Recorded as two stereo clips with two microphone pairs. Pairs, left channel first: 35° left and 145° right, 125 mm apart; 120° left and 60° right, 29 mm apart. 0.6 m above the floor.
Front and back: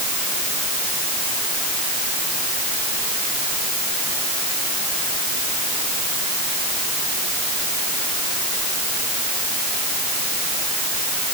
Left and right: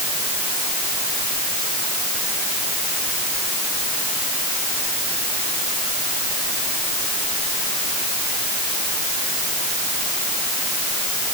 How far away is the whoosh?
I don't hear a whoosh.